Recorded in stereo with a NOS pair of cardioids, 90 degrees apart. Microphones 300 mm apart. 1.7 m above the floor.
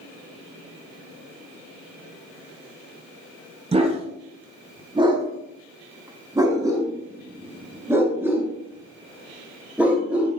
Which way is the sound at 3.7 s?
20° right.